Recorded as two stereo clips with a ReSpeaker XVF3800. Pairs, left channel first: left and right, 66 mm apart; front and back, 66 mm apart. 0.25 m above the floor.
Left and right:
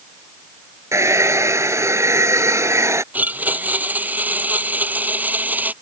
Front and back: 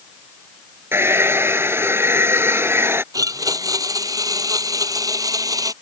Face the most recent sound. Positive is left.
turn(degrees=-155)